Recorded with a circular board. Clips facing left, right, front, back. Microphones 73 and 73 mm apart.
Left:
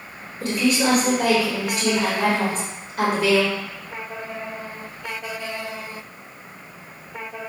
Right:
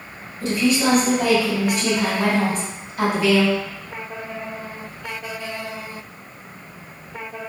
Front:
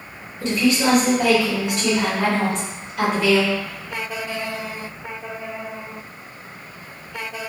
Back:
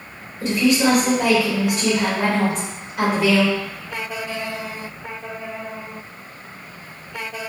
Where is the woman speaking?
100° left, 1.8 m.